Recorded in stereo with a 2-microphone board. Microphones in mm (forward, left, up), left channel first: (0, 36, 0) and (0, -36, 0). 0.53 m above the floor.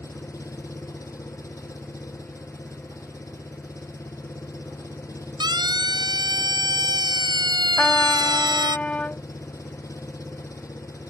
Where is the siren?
80° right; by 8.8 s 75° right (ahead or behind).